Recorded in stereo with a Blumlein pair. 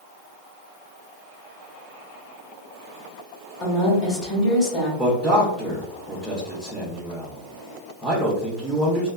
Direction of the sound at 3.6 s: 20° left.